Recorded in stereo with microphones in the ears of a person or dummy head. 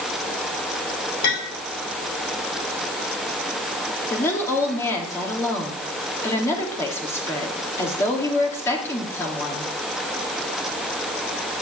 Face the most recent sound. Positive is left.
turn(degrees=15)  # may be behind; listen again after turning